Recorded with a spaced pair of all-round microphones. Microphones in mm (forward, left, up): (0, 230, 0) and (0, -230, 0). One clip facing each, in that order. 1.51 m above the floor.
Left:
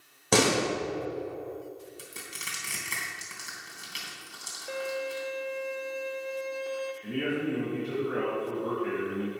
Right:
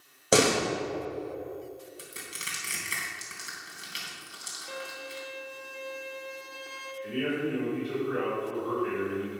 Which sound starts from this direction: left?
A man speaking, at 7.0 s.